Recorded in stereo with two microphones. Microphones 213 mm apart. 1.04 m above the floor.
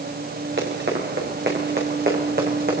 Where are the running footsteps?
65° right (ahead or behind), 6.5 m; by 2.8 s 45° right (ahead or behind), 5 m.